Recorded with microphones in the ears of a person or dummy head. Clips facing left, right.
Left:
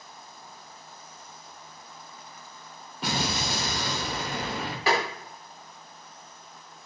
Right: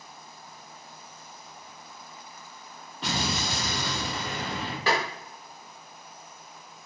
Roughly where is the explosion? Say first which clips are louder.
Left 1 dB; centre.